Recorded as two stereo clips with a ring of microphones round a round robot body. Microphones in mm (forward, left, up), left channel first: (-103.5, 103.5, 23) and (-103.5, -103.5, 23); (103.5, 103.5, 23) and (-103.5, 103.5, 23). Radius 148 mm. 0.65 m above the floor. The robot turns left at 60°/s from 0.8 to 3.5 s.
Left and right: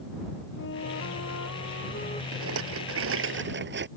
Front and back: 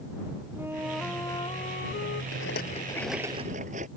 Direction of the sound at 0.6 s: 100° left.